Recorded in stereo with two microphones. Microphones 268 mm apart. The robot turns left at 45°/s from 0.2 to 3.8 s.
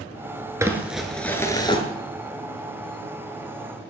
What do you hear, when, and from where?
0.6 s crumpling: 160° right, 1.3 m; by 1.8 s 145° left, 1.3 m